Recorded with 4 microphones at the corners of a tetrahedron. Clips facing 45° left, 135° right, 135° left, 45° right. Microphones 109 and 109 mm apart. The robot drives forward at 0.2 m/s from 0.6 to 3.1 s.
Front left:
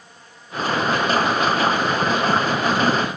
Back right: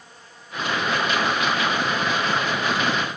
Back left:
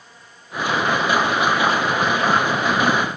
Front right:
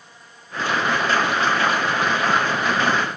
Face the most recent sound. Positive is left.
No sound to turn to.